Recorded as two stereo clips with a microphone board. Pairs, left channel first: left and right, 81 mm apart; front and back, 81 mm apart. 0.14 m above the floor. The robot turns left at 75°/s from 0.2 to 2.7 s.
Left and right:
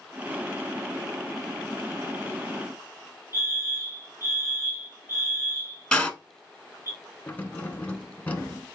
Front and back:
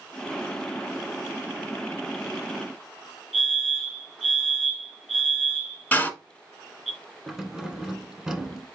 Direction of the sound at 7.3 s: 110° left.